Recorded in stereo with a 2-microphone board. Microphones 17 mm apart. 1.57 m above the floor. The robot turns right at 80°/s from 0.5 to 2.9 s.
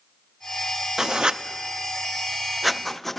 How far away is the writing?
About 0.5 m.